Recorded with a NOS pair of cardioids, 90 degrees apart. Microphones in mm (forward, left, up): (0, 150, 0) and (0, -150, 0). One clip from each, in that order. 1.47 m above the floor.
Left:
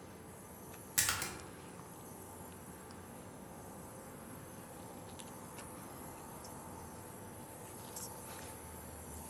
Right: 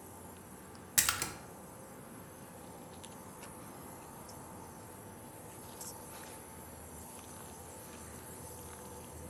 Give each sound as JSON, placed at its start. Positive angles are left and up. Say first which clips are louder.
{"t": 1.0, "sound": "a splash", "louder": "right 3 dB", "azimuth_deg": -20, "distance_m": 0.5}